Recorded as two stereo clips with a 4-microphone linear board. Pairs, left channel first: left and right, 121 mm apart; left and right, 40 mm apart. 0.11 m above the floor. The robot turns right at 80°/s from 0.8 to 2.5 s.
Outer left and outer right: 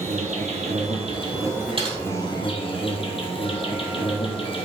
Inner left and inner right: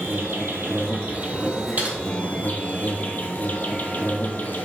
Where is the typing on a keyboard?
50° right (ahead or behind), 2.5 m; by 2.0 s 35° right (ahead or behind), 2.5 m.